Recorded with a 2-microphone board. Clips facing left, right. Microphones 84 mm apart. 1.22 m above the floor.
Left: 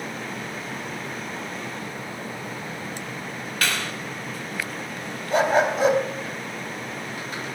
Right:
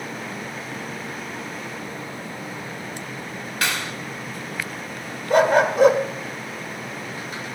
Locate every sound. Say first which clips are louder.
3.6 s a clap: right 1 dB; 20° right (ahead or behind), 3.5 m
5.3 s a dog barking: right 3 dB; 60° right (ahead or behind), 1.9 m